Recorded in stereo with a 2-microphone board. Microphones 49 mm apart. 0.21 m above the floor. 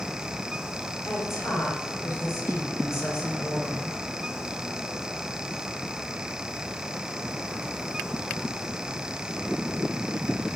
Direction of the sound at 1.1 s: 55° left (ahead or behind).